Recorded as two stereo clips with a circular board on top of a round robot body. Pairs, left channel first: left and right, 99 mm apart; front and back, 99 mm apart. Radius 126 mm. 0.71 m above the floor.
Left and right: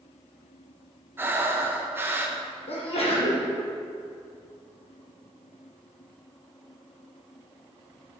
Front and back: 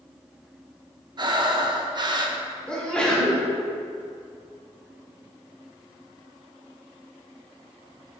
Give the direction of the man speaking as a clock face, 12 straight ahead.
I don't hear a man speaking.